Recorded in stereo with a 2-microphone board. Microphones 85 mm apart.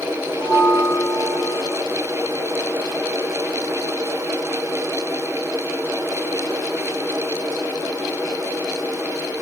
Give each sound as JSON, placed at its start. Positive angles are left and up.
{"t": 0.4, "sound": "a bell", "side_deg": 40, "distance_m": 1.4}